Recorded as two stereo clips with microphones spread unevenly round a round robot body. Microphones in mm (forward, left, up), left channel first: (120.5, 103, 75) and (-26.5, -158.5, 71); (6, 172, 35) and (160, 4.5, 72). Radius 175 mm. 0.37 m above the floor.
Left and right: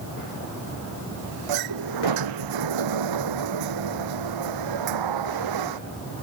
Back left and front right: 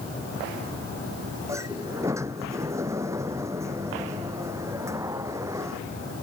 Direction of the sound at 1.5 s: 130° right.